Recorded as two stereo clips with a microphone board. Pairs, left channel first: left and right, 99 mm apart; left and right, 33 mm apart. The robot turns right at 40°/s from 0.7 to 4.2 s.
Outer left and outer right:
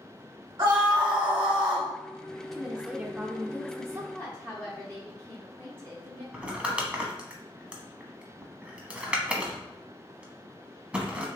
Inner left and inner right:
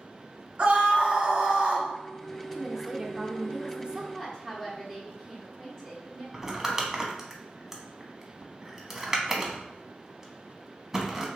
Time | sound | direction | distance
0.6 | a scream | 125° right | 1.8 m
2.5 | a woman speaking | 5° right (ahead or behind) | 0.7 m
4.1 | a woman speaking | 15° left (ahead or behind) | 1.1 m
6.3 | crumpling | 10° right (ahead or behind) | 0.9 m